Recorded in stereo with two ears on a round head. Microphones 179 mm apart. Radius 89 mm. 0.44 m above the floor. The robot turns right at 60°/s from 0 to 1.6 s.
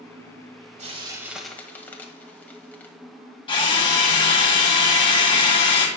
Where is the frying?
35° right (ahead or behind), 1.5 m; by 2.9 s 10° left (ahead or behind), 1.5 m.